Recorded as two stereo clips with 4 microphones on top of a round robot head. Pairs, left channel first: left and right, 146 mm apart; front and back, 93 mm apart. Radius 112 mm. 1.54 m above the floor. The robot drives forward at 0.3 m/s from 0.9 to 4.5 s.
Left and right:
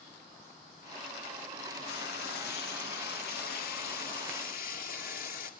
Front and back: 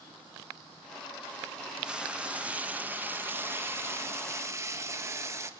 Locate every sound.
1.9 s frying: 100° left, 1.9 m; by 5.5 s 120° left, 2 m